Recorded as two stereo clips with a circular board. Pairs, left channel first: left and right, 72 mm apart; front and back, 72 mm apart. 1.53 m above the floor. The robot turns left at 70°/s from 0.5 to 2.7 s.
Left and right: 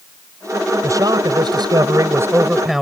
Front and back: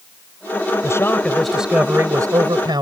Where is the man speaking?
45° right; by 2.8 s 175° right.